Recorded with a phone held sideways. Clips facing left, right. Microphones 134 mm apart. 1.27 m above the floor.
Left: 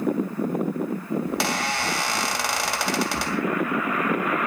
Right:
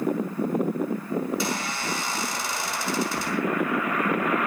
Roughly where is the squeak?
Left.